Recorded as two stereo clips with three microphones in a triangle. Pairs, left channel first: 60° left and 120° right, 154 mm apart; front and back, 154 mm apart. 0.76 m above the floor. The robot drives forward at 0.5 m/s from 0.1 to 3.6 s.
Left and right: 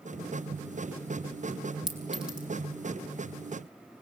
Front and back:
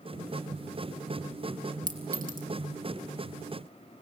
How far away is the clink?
About 3.5 m.